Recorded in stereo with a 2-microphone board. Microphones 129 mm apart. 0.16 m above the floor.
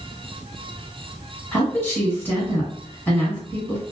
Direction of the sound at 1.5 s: 15° left (ahead or behind).